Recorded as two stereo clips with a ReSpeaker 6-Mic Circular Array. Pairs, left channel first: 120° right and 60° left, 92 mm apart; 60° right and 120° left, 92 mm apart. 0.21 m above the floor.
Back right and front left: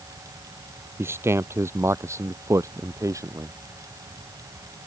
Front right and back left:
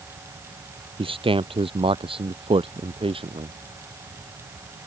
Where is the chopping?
I don't hear chopping.